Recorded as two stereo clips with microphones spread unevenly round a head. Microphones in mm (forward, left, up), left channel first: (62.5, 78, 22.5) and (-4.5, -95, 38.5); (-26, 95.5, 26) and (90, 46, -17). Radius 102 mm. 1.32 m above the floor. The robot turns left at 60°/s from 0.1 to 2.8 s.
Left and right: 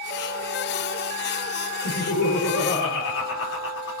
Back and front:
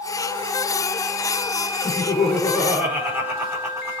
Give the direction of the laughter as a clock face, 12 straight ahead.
9 o'clock.